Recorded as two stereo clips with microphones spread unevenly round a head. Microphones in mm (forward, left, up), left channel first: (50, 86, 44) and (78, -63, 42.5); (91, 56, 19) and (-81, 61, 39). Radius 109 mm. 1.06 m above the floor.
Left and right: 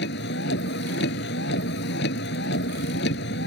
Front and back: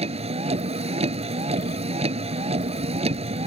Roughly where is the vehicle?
Behind left.